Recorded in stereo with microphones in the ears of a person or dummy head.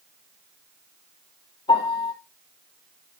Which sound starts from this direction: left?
A piano, at 1.7 s.